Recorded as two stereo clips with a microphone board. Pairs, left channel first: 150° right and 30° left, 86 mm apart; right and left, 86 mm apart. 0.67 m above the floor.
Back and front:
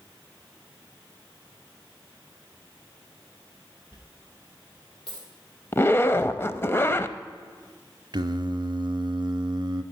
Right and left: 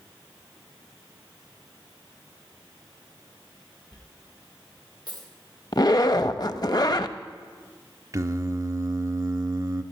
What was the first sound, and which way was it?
A dropped coin, 130° right.